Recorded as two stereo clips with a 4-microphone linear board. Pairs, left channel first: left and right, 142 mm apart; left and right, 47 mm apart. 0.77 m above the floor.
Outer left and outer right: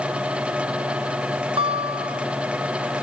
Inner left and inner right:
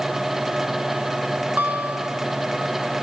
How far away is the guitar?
About 2 m.